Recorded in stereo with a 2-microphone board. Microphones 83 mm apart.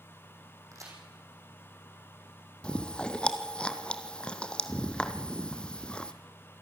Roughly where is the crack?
Right.